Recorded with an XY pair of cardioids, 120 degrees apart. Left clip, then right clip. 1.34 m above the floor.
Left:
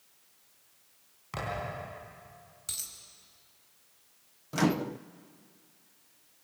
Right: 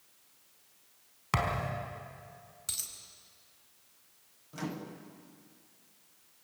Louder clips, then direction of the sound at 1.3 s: Right 4 dB; 65° right.